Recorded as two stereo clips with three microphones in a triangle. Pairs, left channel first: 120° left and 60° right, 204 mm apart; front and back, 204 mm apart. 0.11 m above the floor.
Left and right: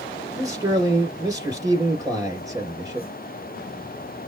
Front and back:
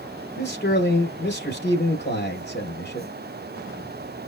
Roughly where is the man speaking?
Ahead.